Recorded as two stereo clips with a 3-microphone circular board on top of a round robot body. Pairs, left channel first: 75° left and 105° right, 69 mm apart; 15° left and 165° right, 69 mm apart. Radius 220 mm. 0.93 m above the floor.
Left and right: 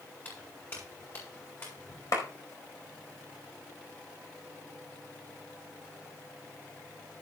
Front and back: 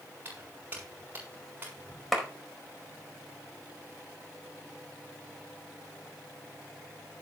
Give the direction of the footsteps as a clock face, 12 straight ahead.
8 o'clock.